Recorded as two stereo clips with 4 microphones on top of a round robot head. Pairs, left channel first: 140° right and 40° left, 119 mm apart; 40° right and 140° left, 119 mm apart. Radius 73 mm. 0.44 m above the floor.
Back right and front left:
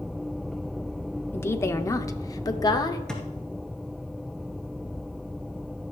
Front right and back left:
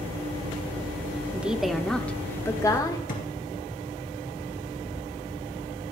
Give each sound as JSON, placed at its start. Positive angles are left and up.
{"t": 1.3, "sound": "a woman speaking", "azimuth_deg": -165, "distance_m": 0.9}
{"t": 3.1, "sound": "a thud", "azimuth_deg": -55, "distance_m": 3.0}